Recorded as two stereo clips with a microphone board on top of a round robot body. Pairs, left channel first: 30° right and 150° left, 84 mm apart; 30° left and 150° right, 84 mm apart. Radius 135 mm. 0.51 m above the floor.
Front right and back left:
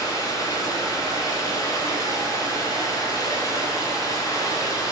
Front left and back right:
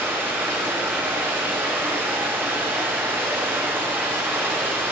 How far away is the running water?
About 5.5 m.